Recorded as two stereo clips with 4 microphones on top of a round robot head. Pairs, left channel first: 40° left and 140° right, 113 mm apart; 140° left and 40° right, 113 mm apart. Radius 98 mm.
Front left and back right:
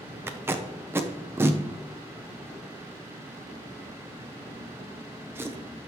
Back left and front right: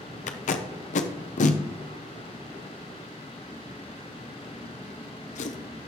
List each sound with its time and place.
0.3 s tape being pulled: 150° left, 0.7 m